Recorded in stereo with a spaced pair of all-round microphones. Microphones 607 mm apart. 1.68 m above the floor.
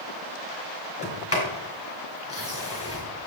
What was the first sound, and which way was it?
A sliding door, 20° left (ahead or behind).